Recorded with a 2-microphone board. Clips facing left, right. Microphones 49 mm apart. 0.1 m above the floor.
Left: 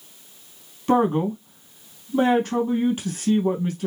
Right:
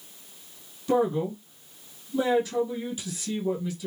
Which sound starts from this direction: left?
A man speaking, at 0.9 s.